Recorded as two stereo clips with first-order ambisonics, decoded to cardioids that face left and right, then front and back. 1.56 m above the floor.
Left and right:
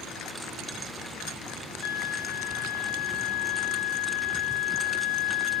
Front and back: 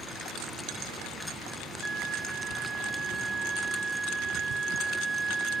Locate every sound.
1.8 s a flute: 110° left, 1.7 m